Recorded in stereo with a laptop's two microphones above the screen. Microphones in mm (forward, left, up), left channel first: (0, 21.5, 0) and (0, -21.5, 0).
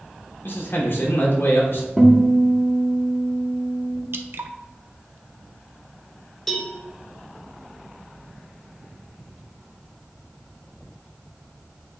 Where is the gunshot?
I don't hear a gunshot.